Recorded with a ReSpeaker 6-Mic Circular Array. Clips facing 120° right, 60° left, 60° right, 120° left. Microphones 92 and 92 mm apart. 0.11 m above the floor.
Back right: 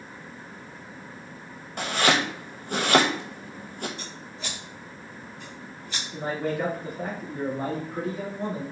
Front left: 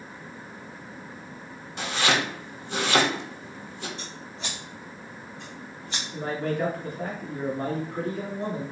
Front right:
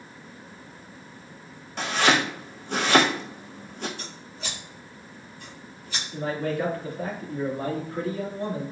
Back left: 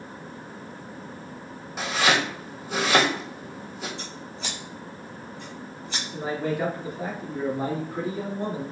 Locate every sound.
1.8 s chopping: 155° right, 1.0 m
4.0 s scissors: 120° left, 2 m
6.1 s a man speaking: 165° left, 1.7 m